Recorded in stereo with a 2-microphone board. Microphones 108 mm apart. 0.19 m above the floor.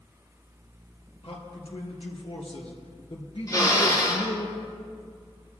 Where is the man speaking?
65° left (ahead or behind), 3 m; by 4.5 s 50° left (ahead or behind), 2.5 m.